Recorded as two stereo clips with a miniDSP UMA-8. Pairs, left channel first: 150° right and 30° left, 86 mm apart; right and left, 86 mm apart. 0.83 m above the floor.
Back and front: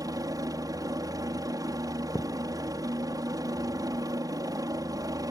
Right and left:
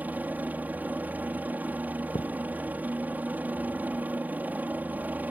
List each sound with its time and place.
0.0 s a helicopter: 30° left
2.1 s a thud: 100° right